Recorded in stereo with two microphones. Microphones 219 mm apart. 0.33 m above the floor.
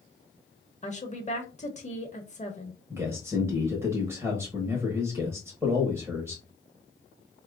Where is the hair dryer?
I don't hear a hair dryer.